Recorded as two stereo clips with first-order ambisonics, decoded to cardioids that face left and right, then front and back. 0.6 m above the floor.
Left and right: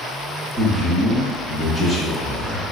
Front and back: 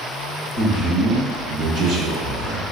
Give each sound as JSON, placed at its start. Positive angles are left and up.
{"t": 0.6, "sound": "a man speaking", "azimuth_deg": -160, "distance_m": 1.0}